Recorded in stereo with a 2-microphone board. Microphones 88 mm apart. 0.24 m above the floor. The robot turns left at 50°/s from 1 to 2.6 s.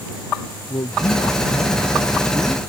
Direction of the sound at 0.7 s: 75° left.